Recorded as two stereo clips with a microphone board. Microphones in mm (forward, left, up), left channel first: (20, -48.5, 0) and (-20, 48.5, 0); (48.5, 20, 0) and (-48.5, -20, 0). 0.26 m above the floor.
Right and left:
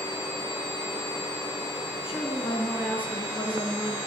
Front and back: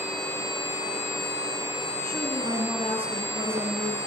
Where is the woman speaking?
135° right, 5.5 m; by 4.0 s 150° right, 4.5 m.